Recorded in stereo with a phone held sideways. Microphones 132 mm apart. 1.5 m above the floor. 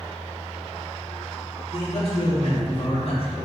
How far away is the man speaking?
About 3.5 m.